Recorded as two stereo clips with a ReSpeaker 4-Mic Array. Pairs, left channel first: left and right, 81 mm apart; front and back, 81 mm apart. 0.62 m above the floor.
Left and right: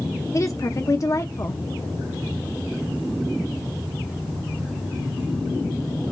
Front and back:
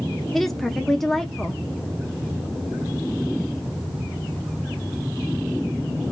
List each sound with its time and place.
0.3 s a woman speaking: 85° left, 0.7 m